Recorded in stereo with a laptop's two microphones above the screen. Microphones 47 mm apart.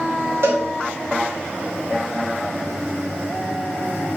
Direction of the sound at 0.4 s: 70° right (ahead or behind).